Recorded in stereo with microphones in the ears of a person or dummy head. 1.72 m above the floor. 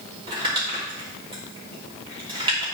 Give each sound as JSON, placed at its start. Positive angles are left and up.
{"t": 0.3, "sound": "crumpling", "side_deg": -25, "distance_m": 3.0}